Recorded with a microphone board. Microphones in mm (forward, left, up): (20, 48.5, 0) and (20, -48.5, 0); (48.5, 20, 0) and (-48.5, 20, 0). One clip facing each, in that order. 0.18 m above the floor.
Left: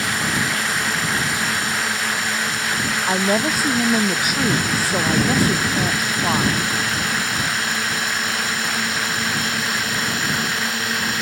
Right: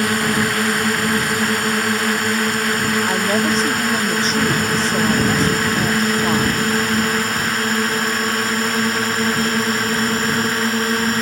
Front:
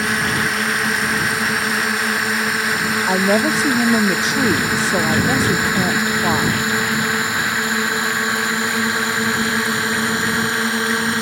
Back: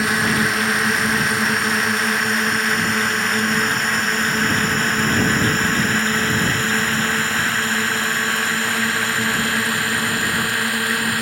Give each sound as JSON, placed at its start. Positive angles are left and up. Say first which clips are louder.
{"t": 0.0, "sound": "a drone", "louder": "right 5 dB, back 1 dB", "azimuth_deg": -90}
{"t": 3.1, "sound": "a woman speaking", "louder": "left 2 dB, front 5 dB", "azimuth_deg": 10}